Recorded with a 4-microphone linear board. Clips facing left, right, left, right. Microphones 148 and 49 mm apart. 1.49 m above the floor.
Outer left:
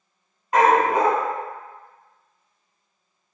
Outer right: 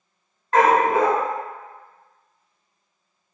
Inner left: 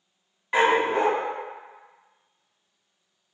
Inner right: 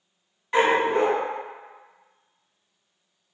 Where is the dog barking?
15° left (ahead or behind), 1.3 m.